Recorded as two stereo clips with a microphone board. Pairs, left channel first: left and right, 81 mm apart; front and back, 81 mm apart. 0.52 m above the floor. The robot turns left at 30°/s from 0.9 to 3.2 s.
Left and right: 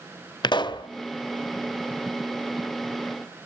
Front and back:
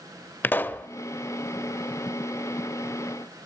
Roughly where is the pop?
Ahead left.